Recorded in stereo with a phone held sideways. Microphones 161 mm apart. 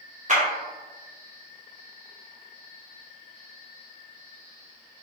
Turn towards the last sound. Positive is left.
turn(degrees=-50)  # may be behind; listen again after turning